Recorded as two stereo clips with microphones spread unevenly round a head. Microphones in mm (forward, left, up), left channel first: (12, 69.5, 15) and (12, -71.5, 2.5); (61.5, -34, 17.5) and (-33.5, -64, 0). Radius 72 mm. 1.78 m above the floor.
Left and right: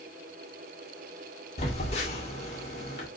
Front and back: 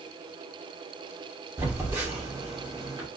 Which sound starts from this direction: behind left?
A phone buzzing, at 1.6 s.